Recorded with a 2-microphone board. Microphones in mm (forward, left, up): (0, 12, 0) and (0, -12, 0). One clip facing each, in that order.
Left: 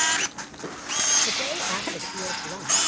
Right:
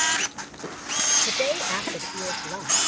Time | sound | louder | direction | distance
1.3 | a woman speaking | right 2 dB | 60° right (ahead or behind) | ?